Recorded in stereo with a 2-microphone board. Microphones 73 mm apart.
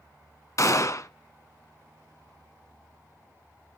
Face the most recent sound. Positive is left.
turn(degrees=45)  # may be behind; listen again after turning